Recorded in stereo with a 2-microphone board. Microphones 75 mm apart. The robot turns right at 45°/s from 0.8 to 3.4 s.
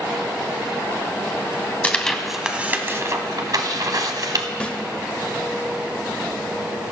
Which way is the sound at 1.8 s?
20° left (ahead or behind).